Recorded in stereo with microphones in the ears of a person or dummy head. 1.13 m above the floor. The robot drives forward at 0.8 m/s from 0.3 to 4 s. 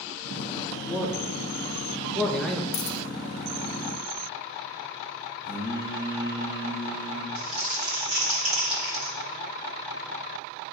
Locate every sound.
0.9 s a man speaking: centre (ahead or behind), 2 m
2.7 s a dropped coin: 45° left (ahead or behind), 0.6 m; by 3.0 s 35° left (ahead or behind), 0.8 m
5.5 s singing: 60° left (ahead or behind), 2.5 m
7.3 s crumpling: 35° right (ahead or behind), 3 m